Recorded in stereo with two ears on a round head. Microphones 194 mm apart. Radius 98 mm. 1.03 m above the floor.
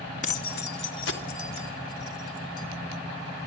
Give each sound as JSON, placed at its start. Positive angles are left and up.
{"t": 0.2, "sound": "keys jangling", "side_deg": 35, "distance_m": 0.7}